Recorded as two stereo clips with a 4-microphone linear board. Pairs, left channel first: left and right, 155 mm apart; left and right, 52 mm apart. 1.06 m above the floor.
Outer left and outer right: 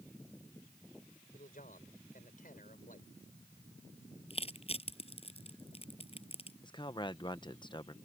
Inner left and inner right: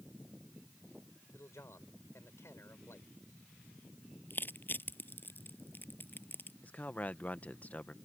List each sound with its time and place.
1.3 s a man speaking: 70° left (ahead or behind)
4.3 s crushing: 40° left (ahead or behind)
6.6 s a man speaking: 30° left (ahead or behind)